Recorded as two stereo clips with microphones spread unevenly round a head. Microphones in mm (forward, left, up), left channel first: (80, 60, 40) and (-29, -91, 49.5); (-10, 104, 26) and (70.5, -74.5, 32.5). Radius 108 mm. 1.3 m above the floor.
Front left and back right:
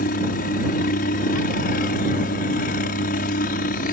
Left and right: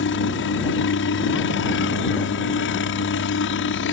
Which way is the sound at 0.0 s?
100° left.